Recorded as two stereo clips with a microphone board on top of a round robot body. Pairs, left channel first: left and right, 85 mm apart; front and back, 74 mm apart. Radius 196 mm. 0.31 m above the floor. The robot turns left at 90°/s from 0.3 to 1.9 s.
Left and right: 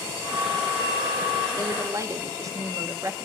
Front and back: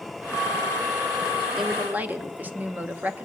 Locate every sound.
1.6 s a woman speaking: 90° right, 1.1 m; by 3.3 s 120° right, 1.1 m